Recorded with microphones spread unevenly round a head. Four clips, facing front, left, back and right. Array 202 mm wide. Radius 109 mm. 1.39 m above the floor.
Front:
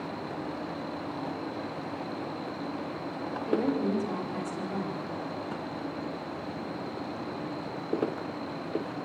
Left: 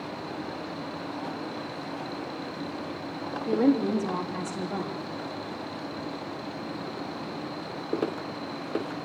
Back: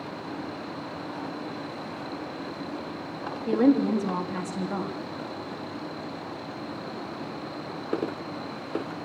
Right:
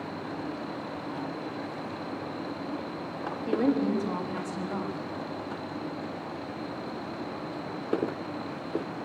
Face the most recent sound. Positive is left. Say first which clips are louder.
# left 3 dB, back 7 dB
turn(degrees=180)